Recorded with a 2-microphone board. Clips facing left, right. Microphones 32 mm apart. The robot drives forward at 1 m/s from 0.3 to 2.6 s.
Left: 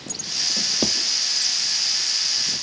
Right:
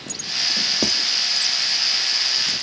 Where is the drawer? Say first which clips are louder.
Right 1 dB; 5° left (ahead or behind), 0.9 m.